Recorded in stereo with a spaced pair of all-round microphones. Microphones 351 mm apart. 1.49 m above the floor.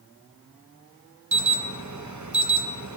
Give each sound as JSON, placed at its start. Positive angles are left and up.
{"t": 1.3, "sound": "an alarm", "side_deg": -55, "distance_m": 0.8}